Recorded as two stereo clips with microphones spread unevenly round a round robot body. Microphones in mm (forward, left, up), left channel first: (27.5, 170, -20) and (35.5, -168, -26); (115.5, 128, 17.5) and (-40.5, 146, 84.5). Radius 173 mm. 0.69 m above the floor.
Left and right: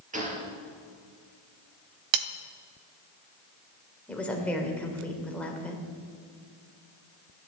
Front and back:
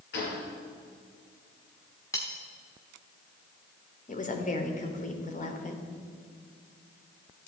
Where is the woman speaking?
5° left, 3 m.